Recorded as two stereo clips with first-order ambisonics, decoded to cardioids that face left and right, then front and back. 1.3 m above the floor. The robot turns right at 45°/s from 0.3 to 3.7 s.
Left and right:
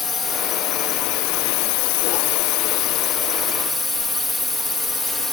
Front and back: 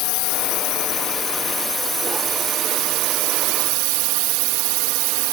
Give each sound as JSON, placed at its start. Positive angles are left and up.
{"t": 0.0, "sound": "a drone", "azimuth_deg": 20}